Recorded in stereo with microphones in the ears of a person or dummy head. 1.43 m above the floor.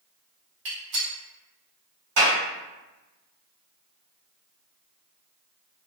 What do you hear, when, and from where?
0.7 s a gunshot: 60° right (ahead or behind), 1.4 m
2.2 s a clap: 70° right (ahead or behind), 1.6 m